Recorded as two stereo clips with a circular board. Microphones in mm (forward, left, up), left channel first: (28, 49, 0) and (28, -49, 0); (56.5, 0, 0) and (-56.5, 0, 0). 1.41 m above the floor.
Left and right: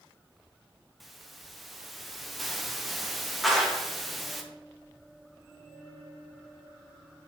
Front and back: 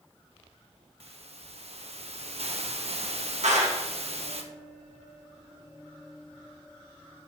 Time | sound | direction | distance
1.0 | a hiss | straight behind | 0.9 m
3.4 | a clap | straight behind | 1.7 m